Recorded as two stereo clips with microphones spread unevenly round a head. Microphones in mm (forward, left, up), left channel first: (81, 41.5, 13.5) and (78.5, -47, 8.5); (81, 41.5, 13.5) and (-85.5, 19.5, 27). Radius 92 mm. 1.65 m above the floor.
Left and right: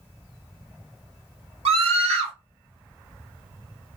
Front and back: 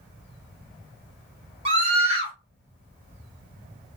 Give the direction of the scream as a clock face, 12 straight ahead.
4 o'clock.